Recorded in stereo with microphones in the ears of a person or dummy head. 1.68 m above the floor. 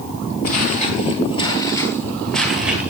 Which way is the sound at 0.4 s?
45° left (ahead or behind).